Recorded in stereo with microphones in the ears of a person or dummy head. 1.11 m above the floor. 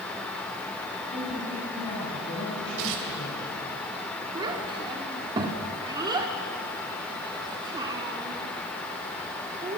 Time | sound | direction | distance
1.1 | a woman speaking | 35° left (ahead or behind) | 7 m
2.8 | tearing paper | 75° right (ahead or behind) | 4 m
4.3 | a child speaking | 20° right (ahead or behind) | 2.5 m